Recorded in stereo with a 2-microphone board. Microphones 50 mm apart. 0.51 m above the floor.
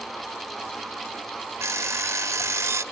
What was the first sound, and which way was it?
An alarm clock, 65° right (ahead or behind).